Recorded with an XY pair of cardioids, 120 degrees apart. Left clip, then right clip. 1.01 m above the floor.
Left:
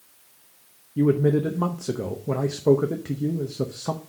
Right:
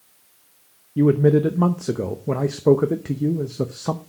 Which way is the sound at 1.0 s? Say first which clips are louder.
Right 4 dB; 30° right.